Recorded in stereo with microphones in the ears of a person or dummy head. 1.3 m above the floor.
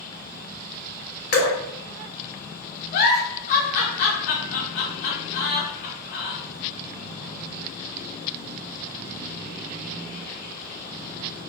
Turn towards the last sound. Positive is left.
turn(degrees=50)  # may be behind; listen again after turning